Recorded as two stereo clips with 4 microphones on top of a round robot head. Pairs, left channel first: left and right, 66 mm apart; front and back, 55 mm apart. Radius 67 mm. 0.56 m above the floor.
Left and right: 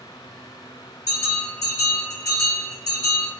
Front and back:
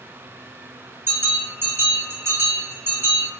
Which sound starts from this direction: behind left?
A bell, at 1.1 s.